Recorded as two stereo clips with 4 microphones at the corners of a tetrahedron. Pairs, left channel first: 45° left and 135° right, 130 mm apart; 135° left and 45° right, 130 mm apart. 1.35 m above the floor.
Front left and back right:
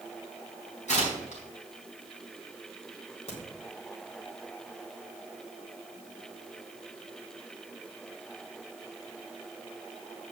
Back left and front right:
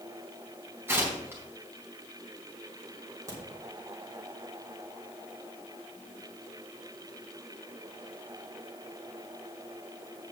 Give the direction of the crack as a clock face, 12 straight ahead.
11 o'clock.